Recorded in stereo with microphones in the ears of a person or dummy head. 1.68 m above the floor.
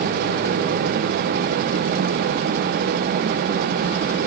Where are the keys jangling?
No keys jangling in this recording.